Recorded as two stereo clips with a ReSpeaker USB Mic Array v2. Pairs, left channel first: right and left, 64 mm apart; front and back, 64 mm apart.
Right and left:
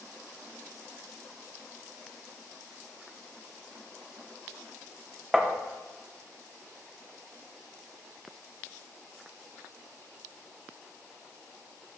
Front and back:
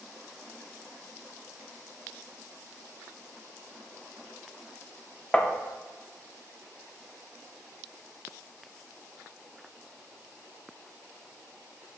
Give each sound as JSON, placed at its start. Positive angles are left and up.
{"t": 5.3, "sound": "tapping", "azimuth_deg": 20, "distance_m": 0.7}